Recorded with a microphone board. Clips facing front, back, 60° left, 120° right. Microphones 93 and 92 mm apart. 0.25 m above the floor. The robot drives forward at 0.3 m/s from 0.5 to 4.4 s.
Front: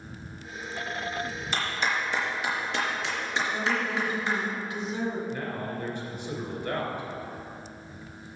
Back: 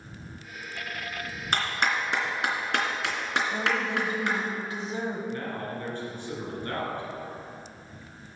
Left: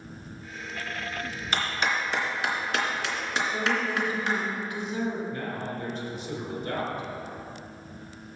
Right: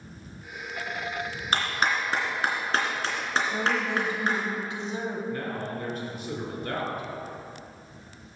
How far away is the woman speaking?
About 1.1 m.